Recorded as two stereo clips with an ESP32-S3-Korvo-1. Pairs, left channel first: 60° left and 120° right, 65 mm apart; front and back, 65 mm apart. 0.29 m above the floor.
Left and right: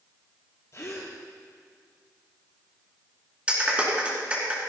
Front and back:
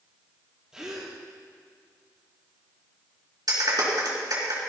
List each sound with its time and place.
0.7 s a gasp: 100° left, 3.5 m
3.5 s a clap: 170° left, 3.5 m